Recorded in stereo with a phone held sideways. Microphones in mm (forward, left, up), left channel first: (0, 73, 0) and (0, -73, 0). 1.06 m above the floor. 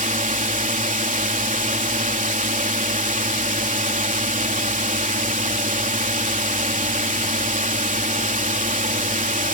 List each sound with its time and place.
0.0 s a drone: 65° right (ahead or behind)